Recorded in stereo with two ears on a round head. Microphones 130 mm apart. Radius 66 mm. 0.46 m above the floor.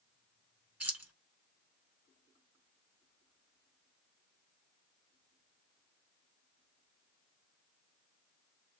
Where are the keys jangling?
10° right (ahead or behind), 1.4 m.